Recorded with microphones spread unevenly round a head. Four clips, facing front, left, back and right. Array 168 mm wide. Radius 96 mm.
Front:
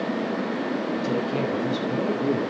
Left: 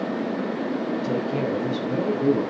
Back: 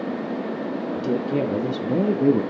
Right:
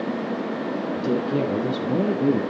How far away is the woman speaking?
About 2 m.